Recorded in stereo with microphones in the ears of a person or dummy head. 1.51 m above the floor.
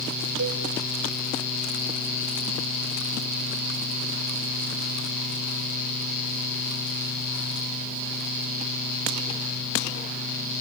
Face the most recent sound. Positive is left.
turn(degrees=-80)